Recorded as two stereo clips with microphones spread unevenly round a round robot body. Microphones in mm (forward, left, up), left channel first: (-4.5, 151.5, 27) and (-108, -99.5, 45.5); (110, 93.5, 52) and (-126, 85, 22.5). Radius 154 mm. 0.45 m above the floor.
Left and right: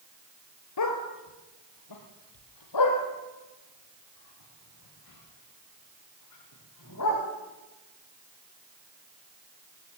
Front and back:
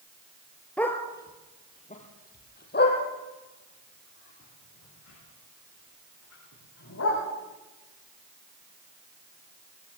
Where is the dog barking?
85° left, 3 m; by 7.2 s 25° left, 10 m.